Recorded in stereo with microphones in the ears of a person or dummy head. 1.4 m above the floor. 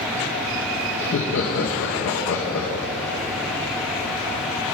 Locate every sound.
1.0 s laughter: 65° left (ahead or behind), 1.0 m